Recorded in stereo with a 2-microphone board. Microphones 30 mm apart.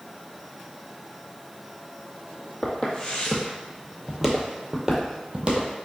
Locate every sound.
2.6 s footsteps: 35° left (ahead or behind), 1.4 m; by 5.7 s 40° right (ahead or behind), 1.3 m